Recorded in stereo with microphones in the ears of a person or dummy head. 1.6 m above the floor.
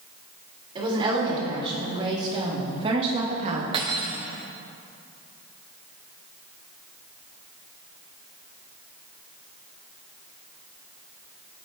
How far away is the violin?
I don't hear a violin.